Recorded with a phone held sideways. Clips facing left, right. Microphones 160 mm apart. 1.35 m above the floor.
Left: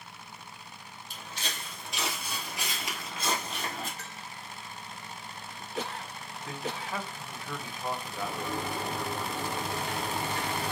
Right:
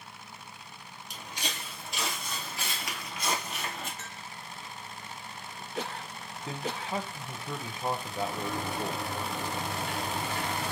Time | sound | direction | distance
1.1 | footsteps | 20° right (ahead or behind) | 1.6 m
4.0 | a bell | 30° left (ahead or behind) | 2.0 m
6.5 | a man speaking | 25° right (ahead or behind) | 0.6 m
8.1 | a sliding door | 45° left (ahead or behind) | 2.5 m